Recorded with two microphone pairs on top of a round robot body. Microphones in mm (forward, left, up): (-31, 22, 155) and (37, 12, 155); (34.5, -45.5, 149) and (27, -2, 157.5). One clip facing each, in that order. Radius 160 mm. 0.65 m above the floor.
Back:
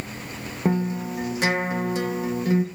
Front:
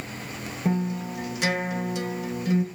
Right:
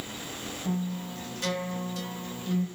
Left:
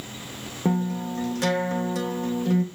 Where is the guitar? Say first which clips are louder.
Back 3 dB, left 8 dB; 120° left, 3 m.